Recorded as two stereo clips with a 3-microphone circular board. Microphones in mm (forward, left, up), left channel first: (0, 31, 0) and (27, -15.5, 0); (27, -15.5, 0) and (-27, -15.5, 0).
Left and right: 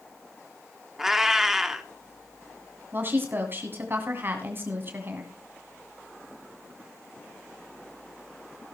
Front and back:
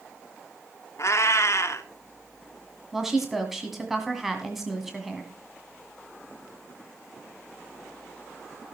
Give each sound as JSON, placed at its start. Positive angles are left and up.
{"t": 1.0, "sound": "a cat meowing", "azimuth_deg": 20, "distance_m": 1.1}
{"t": 2.9, "sound": "a woman speaking", "azimuth_deg": -95, "distance_m": 1.9}